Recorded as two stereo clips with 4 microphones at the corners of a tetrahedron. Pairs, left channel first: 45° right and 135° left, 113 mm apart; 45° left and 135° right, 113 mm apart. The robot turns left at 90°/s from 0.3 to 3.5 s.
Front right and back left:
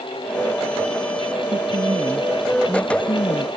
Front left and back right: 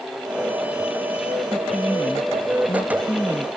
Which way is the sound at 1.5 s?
135° left.